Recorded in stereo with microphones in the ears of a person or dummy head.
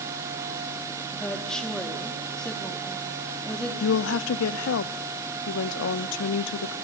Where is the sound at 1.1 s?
Centre (ahead or behind), 4 m.